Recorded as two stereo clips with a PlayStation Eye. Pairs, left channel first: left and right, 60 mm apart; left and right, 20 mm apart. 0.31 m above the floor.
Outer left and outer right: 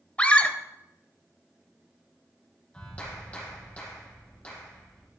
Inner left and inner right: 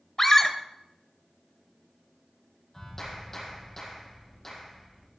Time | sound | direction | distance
0.2 | a scream | 20° left (ahead or behind) | 1.7 m
2.7 | a clap | 25° left (ahead or behind) | 9.5 m